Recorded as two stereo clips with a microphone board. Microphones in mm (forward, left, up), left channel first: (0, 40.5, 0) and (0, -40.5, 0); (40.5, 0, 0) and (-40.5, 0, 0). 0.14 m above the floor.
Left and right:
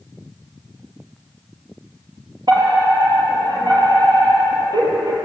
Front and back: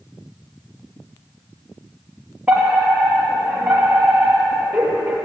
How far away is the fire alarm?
About 5 m.